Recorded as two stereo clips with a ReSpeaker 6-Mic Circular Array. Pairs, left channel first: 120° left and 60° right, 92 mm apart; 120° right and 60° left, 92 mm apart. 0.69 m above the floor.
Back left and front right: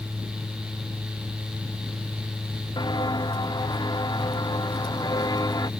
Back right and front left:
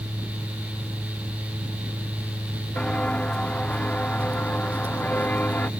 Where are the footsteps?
160° left; by 5.7 s 165° left.